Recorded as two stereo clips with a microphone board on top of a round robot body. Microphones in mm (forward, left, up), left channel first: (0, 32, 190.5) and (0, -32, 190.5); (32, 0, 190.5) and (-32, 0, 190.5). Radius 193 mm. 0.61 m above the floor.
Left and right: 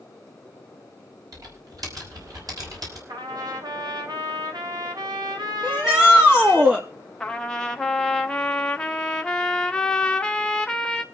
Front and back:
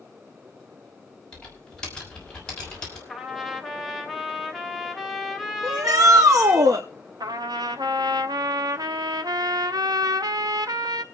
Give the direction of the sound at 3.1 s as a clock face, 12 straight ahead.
3 o'clock.